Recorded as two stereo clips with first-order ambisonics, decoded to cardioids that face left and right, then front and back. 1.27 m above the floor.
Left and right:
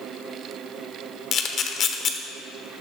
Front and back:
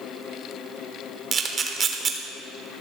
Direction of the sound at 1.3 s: 125° left.